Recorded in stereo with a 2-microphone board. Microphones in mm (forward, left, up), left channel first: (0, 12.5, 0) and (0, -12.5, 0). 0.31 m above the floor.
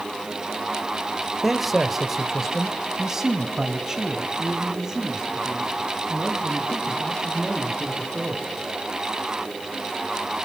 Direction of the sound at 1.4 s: Centre (ahead or behind).